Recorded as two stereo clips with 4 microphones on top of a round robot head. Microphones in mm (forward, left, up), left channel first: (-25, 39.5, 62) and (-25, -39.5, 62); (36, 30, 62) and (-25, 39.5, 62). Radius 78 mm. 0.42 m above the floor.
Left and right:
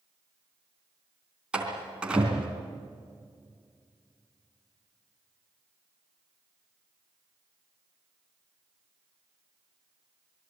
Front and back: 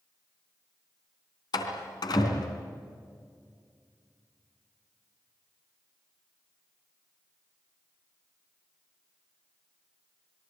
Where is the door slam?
10° right, 3.5 m.